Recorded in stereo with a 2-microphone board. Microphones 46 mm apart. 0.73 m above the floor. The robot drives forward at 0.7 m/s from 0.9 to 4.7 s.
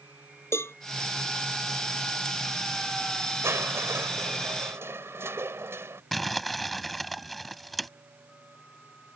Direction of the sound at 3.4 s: 75° right (ahead or behind).